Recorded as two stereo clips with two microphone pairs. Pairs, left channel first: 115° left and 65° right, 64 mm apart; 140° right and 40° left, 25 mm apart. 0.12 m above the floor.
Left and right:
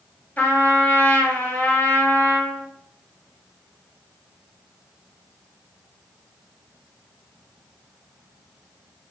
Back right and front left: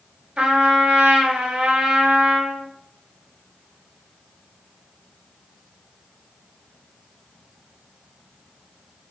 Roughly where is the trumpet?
Ahead left.